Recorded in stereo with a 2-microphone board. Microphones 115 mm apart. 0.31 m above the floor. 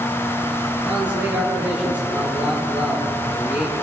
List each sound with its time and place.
0.8 s a man speaking: 10° right (ahead or behind), 7.5 m